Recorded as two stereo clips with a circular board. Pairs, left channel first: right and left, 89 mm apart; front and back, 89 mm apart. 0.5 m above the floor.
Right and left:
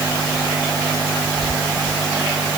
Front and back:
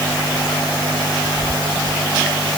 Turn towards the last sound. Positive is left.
No sound to turn to.